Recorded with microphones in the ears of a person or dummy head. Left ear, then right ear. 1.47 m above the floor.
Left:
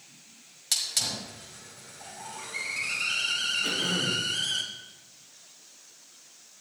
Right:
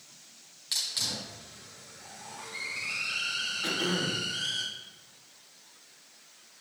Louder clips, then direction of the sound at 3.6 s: Left 2 dB; 85° right.